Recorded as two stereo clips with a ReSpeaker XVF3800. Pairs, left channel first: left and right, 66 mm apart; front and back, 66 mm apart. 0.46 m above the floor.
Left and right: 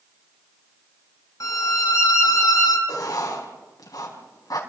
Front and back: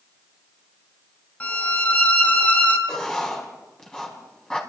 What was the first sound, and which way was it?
A violin, 65° left.